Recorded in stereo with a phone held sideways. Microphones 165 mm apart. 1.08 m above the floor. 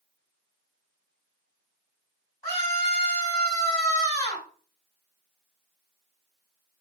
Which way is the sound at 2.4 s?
20° left (ahead or behind).